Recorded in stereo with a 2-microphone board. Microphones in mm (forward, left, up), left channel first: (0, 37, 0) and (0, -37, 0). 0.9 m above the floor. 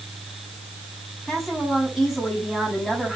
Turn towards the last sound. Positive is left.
turn(degrees=0)  # may be behind; listen again after turning